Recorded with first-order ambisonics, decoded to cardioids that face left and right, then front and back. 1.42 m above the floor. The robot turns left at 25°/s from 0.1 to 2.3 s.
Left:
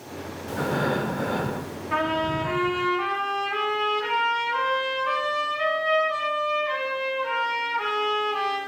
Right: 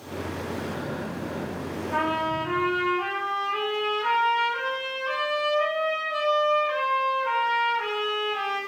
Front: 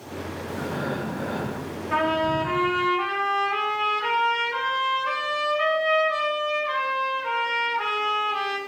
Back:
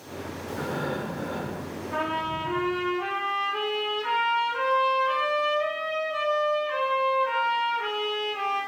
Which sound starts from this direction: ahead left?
A trumpet, at 1.9 s.